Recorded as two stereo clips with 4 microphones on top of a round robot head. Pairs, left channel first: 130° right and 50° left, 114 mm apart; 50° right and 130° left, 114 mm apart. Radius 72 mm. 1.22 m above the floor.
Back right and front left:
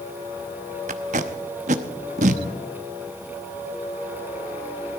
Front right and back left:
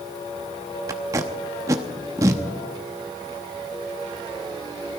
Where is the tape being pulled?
70° left, 0.9 m.